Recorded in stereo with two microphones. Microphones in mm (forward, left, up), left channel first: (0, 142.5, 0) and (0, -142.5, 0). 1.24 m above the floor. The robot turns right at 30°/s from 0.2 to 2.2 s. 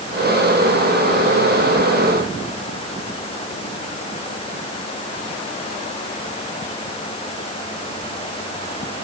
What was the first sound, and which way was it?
Only background noise.